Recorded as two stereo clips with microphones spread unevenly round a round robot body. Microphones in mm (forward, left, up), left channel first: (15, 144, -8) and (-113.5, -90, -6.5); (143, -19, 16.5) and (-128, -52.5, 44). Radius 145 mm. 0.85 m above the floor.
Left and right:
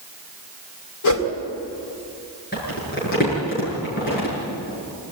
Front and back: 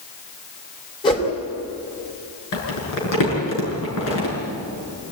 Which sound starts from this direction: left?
A whoosh, at 1.0 s.